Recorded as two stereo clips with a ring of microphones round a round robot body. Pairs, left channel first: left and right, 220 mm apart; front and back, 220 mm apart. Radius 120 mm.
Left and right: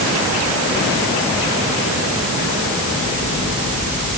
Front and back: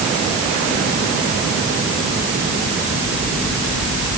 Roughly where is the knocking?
No knocking in this recording.